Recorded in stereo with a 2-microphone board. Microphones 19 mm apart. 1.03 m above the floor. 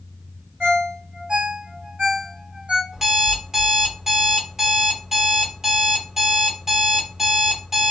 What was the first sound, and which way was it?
A ringtone, 60° right (ahead or behind).